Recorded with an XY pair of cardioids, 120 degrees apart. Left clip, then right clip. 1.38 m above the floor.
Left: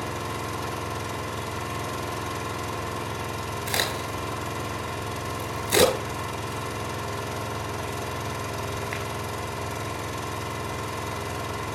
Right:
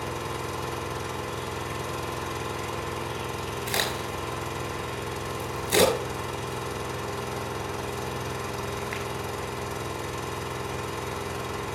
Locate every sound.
0.0 s an engine running: 30° left, 2.5 m
3.7 s a crack: 15° left, 7 m